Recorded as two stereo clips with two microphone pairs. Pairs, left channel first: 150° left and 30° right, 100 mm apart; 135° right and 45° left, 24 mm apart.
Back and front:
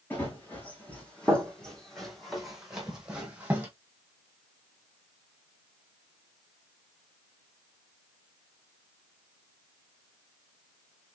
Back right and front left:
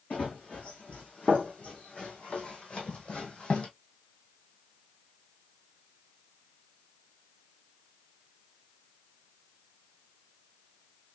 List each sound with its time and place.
0.1 s running footsteps: 140° right, 3 m; by 3.7 s 100° right, 2.5 m